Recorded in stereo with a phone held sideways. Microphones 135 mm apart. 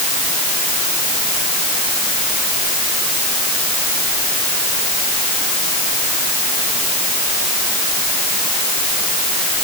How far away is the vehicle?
I don't hear a vehicle.